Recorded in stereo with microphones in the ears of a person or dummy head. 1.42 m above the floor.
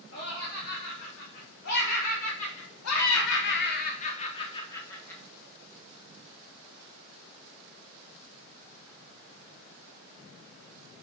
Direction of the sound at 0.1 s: 55° left (ahead or behind).